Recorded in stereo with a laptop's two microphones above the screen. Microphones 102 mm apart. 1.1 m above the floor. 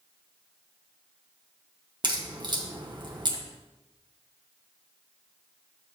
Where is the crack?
50° right (ahead or behind), 1.3 m.